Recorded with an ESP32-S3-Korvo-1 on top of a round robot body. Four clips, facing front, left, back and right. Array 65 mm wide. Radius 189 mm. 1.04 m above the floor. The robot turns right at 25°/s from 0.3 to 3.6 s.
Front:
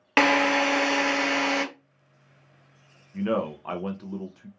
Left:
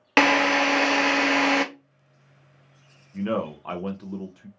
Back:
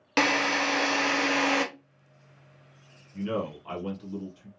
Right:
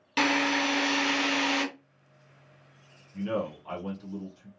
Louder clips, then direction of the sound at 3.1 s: Left 4 dB, front 4 dB; 30° left.